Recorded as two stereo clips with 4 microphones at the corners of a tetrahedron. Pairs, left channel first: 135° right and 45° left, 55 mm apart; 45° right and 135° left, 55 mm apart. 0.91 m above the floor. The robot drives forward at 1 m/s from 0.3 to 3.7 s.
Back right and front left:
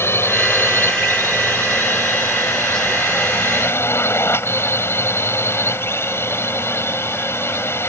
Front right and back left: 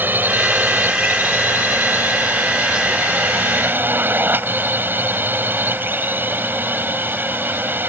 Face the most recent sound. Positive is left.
turn(degrees=-175)